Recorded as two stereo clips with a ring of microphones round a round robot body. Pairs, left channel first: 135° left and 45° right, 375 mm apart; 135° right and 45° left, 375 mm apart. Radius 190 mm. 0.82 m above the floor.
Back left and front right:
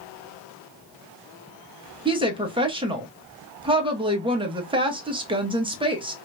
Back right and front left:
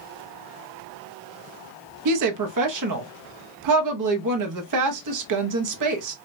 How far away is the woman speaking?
About 1.0 m.